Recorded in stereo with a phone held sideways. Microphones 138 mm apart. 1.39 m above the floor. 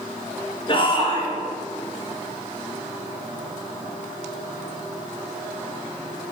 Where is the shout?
35° left (ahead or behind), 5 m.